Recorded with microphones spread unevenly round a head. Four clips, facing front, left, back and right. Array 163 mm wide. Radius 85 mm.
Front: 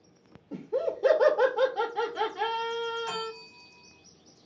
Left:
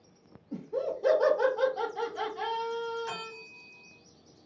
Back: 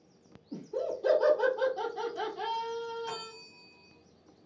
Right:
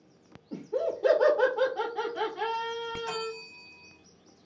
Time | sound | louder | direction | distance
0.5 | laughter | right 2 dB, front 4 dB | 25° right | 1.2 m
3.1 | a bell | right 5 dB, front 6 dB | 20° right | 1.3 m